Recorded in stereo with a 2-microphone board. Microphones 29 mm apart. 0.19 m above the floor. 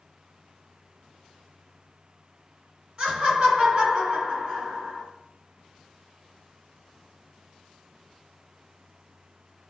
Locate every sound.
3.0 s laughter: 35° right (ahead or behind), 1.9 m